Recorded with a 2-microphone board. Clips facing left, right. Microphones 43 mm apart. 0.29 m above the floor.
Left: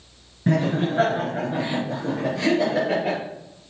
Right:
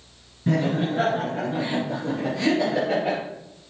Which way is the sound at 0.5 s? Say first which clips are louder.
Left 1 dB; 25° left (ahead or behind).